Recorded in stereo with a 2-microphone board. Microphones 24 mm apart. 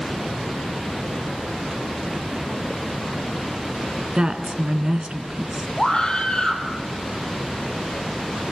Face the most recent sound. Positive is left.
turn(degrees=40)  # may be behind; listen again after turning